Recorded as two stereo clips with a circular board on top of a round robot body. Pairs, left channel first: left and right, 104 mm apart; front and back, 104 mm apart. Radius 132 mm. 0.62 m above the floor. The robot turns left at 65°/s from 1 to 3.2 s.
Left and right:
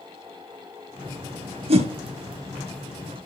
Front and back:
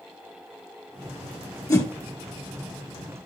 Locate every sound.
1.7 s a whoosh: 55° right, 2.5 m; by 1.9 s 70° right, 2.5 m